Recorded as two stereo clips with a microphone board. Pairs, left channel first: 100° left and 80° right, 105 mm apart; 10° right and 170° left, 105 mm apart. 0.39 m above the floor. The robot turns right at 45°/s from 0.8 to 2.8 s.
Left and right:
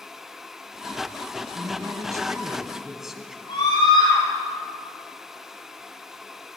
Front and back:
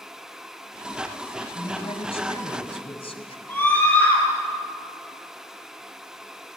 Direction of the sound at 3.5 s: 65° left.